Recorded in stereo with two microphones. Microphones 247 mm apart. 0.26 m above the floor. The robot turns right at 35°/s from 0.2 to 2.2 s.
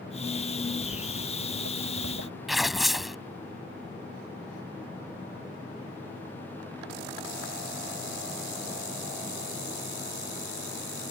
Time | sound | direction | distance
0.8 | footsteps | 65° right (ahead or behind) | ?
2.5 | tearing paper | centre (ahead or behind) | ?